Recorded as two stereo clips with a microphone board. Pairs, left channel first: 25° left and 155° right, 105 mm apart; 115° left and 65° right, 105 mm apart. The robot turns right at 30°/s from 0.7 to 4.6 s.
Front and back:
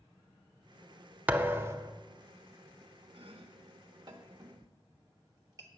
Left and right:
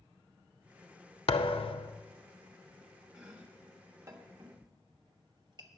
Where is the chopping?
150° right, 1.1 m; by 5.7 s 105° right, 1.1 m.